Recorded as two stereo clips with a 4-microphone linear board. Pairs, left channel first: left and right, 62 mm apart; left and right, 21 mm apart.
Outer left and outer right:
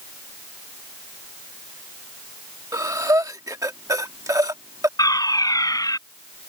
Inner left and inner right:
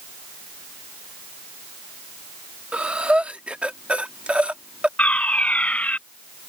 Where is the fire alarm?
75° left (ahead or behind).